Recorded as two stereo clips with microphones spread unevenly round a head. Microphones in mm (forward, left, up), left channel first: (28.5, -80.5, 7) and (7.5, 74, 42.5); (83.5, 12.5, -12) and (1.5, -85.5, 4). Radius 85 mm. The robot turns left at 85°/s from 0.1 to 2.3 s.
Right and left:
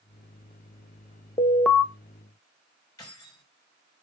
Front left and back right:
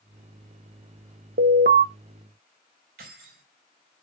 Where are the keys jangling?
155° right, 5 m.